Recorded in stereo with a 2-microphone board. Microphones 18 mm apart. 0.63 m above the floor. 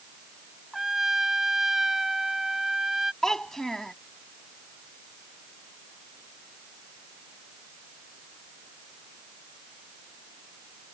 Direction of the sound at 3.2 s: 30° left (ahead or behind).